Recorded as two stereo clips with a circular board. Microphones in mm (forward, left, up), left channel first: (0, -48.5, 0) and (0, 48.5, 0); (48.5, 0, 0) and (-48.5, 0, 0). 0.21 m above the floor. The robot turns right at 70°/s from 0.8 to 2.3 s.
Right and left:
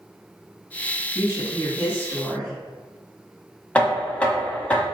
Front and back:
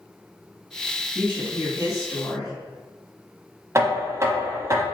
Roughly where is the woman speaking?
Right.